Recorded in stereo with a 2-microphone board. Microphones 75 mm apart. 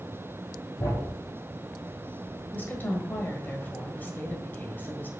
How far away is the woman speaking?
About 1.4 m.